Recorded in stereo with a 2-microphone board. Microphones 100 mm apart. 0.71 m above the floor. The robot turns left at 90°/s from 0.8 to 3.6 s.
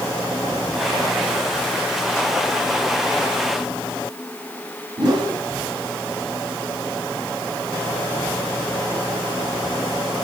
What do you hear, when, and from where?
5.0 s a whoosh: 50° right (ahead or behind), 1.8 m